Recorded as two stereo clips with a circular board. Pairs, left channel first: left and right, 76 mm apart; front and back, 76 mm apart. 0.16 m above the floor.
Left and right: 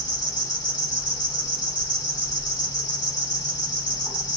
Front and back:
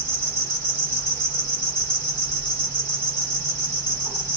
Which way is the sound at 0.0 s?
70° left.